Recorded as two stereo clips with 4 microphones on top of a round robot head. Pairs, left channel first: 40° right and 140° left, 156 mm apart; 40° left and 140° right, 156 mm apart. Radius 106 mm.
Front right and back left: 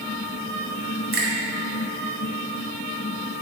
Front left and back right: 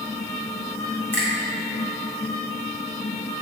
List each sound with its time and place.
1.1 s a finger snap: 120° left, 2 m